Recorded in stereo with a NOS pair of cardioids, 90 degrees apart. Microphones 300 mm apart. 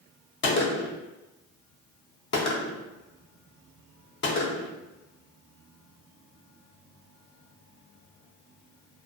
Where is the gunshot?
40° left, 0.6 m.